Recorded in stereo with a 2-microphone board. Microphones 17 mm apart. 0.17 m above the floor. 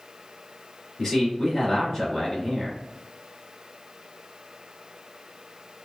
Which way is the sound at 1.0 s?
10° left (ahead or behind).